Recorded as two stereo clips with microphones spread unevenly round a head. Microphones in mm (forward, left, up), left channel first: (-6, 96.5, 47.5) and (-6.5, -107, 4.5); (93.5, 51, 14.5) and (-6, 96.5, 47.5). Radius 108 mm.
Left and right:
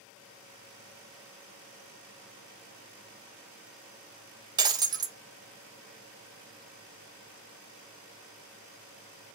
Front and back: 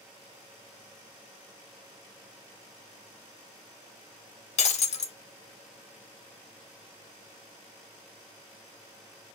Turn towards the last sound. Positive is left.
turn(degrees=-10)